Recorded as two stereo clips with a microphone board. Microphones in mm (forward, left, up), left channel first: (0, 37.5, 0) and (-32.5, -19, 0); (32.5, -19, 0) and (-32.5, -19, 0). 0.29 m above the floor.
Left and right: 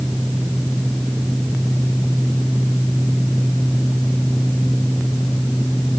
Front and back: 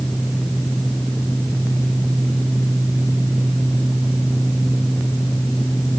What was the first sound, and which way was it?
Only background noise.